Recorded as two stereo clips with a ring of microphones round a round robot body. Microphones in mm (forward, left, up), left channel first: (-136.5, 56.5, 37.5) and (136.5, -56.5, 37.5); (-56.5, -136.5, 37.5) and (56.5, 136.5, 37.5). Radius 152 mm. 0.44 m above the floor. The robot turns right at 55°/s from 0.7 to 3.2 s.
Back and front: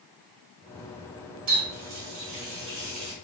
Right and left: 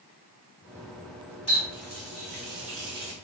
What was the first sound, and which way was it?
A running tap, 40° right.